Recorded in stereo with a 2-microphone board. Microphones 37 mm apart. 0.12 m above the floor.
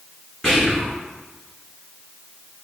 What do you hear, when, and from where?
0.4 s whispering: 20° left (ahead or behind), 1.7 m